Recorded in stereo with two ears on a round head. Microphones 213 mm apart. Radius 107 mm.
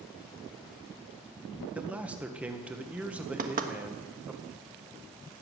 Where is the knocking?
35° right (ahead or behind), 1.4 m.